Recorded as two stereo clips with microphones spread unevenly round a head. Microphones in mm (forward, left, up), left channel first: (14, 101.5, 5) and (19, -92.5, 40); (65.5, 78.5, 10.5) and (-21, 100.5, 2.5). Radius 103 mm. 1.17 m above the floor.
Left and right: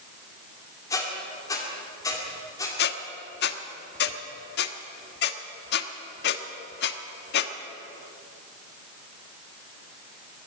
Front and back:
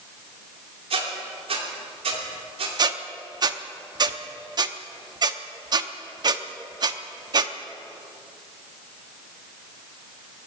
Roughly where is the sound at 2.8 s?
Behind left.